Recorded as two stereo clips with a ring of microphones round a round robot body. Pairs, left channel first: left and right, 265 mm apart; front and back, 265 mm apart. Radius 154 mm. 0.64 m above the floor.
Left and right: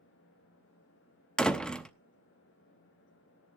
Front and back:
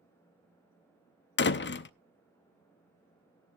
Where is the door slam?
5° left, 0.7 m.